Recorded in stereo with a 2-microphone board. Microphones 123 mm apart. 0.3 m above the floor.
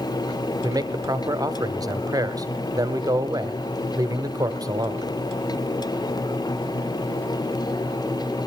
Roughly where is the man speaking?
Right.